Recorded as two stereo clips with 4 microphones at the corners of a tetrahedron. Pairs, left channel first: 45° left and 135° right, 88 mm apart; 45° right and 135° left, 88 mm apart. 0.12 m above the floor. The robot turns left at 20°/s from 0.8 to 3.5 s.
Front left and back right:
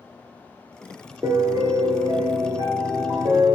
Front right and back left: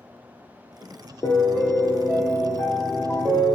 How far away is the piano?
About 0.7 m.